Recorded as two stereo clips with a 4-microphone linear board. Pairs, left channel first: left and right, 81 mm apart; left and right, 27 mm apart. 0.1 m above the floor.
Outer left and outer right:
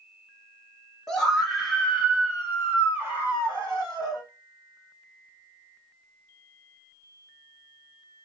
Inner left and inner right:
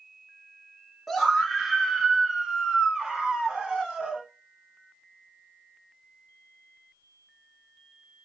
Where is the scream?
5° left (ahead or behind), 1.5 m; by 4.2 s 35° right (ahead or behind), 2.5 m.